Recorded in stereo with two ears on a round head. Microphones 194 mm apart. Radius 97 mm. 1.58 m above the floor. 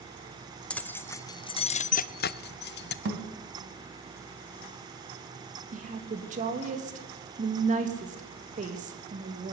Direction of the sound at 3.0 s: 55° right (ahead or behind).